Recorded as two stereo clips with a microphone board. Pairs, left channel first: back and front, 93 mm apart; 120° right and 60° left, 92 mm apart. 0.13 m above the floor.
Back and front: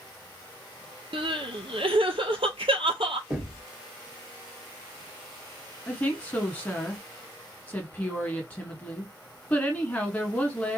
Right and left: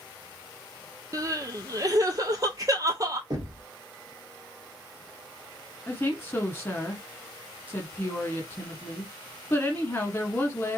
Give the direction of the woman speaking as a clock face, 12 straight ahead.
4 o'clock.